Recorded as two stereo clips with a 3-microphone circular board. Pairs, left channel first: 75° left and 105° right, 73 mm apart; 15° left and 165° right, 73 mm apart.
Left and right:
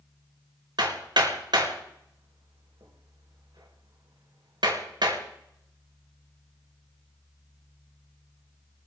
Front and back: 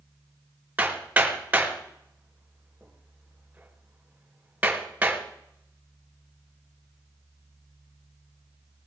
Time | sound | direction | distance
0.8 | hammering | 95° right | 4 m